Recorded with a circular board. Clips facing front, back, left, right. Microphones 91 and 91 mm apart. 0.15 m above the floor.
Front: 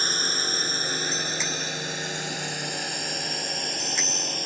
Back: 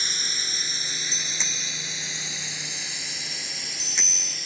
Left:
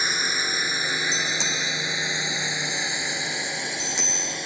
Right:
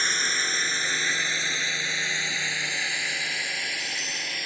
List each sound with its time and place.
0.0 s a drone: 15° left; by 4.5 s 25° left
1.1 s a bicycle bell: 85° left